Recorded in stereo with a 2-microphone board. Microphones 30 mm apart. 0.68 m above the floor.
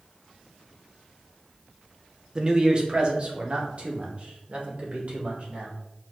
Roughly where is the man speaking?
Right.